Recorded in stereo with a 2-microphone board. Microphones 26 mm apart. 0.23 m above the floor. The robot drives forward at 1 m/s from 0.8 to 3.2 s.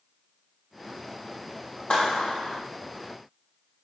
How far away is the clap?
About 7.5 m.